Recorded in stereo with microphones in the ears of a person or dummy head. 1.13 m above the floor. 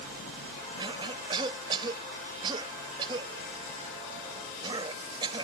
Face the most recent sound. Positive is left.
turn(degrees=-30)  # may be behind; listen again after turning